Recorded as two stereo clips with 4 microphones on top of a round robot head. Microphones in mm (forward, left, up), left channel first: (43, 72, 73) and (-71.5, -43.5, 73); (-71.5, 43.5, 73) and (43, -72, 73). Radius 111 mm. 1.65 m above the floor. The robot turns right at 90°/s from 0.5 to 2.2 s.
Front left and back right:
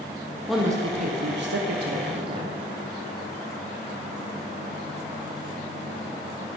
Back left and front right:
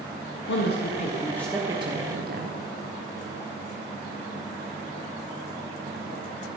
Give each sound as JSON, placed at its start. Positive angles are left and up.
{"t": 0.5, "sound": "a woman speaking", "azimuth_deg": 135, "distance_m": 1.4}